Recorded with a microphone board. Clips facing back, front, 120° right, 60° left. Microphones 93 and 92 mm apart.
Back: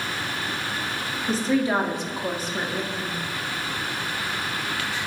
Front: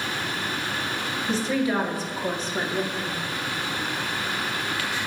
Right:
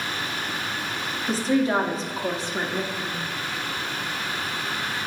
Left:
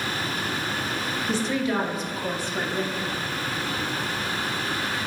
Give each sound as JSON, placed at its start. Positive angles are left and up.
{"t": 1.3, "sound": "a woman speaking", "azimuth_deg": -150, "distance_m": 1.0}